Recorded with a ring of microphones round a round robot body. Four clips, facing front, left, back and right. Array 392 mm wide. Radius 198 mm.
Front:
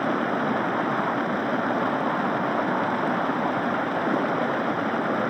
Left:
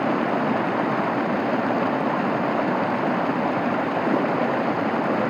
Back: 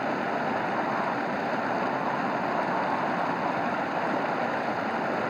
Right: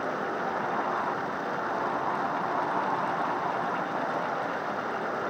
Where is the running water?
70° left.